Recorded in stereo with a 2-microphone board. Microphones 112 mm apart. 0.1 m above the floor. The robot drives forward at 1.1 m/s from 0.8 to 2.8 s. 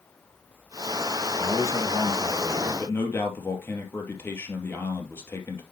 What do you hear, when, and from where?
1.4 s a man speaking: 30° left (ahead or behind), 1.8 m; by 5.6 s 20° left (ahead or behind), 2.5 m